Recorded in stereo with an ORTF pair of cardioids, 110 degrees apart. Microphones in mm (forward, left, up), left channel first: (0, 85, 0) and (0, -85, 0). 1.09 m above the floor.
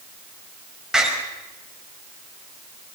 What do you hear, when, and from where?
0.9 s a door slam: 5° right, 5 m